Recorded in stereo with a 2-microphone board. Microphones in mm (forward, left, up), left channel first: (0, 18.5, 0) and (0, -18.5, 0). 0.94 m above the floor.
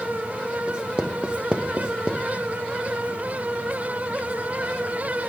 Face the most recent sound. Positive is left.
turn(degrees=-25)  # may be behind; listen again after turning